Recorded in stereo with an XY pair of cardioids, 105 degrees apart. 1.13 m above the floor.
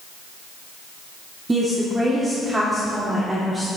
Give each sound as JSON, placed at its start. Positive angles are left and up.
{"t": 1.5, "sound": "a woman speaking", "azimuth_deg": -20, "distance_m": 2.0}